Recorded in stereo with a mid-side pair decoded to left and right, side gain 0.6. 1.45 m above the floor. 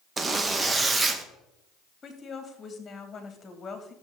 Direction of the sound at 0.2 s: 25° right.